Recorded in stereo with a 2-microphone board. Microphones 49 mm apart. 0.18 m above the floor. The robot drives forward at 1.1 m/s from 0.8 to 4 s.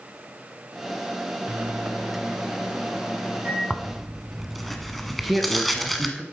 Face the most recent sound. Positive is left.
turn(degrees=-5)  # may be behind; listen again after turning